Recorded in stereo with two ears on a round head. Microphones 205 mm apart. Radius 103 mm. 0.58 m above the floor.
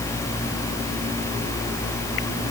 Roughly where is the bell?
I don't hear a bell.